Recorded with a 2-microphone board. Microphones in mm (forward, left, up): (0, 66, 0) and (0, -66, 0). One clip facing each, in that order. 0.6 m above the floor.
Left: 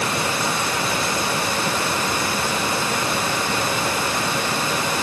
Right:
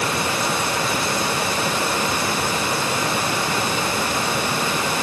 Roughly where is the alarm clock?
I don't hear an alarm clock.